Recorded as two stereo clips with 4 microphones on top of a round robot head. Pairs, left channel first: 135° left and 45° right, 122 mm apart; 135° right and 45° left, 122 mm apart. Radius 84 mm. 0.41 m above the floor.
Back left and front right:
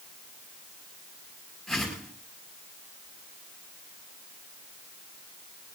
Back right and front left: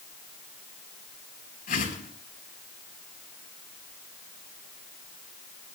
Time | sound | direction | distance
1.7 | a whoosh | 135° right | 5.5 m